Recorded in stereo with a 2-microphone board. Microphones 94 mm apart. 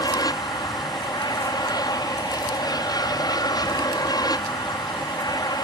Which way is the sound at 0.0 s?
45° left (ahead or behind).